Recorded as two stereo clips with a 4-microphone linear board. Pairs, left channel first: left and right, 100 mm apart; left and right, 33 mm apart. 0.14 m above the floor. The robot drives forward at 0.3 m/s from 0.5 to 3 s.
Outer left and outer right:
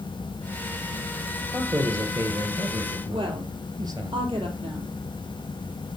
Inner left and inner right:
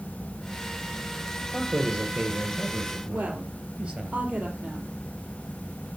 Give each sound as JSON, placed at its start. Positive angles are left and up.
{"t": 1.5, "sound": "a man speaking", "side_deg": -35, "distance_m": 3.5}
{"t": 3.1, "sound": "a woman speaking", "side_deg": -60, "distance_m": 4.5}